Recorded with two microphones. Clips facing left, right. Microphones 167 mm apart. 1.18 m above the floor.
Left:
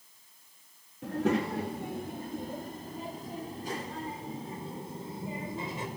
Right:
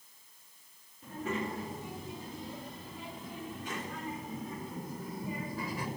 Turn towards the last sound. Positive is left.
turn(degrees=25)  # may be behind; listen again after turning